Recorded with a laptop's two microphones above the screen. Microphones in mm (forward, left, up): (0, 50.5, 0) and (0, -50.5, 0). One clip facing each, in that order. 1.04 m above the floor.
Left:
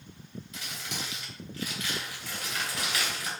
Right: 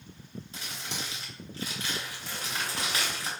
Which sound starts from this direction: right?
Crumpling, at 0.5 s.